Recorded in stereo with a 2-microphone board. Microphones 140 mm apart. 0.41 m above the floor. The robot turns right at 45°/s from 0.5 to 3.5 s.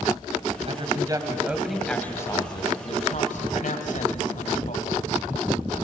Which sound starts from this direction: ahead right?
A woman speaking, at 0.7 s.